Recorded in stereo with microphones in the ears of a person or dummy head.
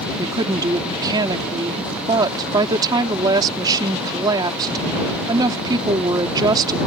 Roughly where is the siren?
No siren in this recording.